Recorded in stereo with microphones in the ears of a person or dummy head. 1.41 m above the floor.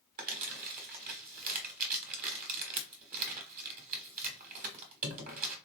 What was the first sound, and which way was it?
Crumpling, 45° right (ahead or behind).